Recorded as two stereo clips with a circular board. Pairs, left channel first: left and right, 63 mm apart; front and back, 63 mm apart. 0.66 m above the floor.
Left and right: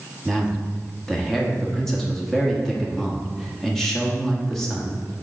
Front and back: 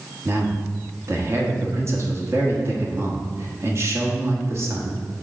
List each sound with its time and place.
0.2 s a man speaking: 170° left, 1.3 m